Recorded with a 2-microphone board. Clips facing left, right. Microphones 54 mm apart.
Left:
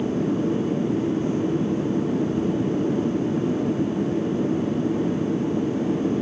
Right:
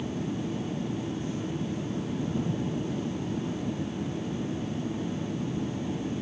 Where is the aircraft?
60° left (ahead or behind).